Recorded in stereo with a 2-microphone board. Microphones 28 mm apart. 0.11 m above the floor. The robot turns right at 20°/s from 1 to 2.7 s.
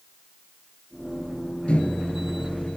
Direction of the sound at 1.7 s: 45° left (ahead or behind).